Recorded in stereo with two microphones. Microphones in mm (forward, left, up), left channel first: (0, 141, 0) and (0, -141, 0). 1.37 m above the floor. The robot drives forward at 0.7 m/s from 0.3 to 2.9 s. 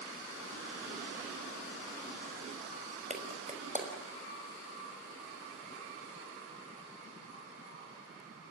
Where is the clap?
25° right (ahead or behind), 5.5 m.